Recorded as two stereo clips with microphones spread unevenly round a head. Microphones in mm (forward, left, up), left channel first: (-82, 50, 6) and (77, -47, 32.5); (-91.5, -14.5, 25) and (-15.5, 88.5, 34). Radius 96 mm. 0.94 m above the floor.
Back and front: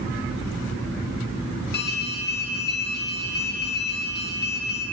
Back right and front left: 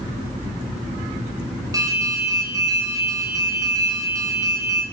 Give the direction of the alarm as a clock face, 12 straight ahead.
8 o'clock.